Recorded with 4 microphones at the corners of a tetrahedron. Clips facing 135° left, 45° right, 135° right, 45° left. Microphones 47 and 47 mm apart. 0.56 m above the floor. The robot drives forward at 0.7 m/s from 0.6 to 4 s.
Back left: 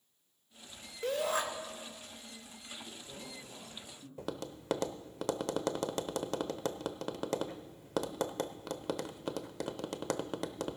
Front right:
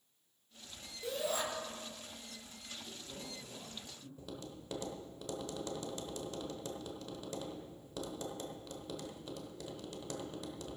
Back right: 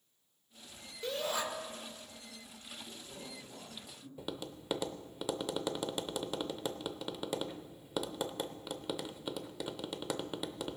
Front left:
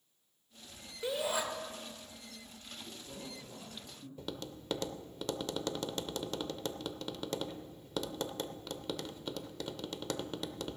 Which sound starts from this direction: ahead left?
A man speaking, at 2.8 s.